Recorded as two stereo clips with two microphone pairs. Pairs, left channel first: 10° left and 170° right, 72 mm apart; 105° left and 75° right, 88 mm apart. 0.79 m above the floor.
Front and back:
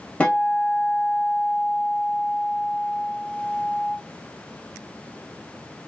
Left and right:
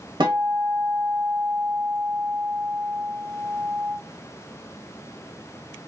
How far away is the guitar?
About 0.9 m.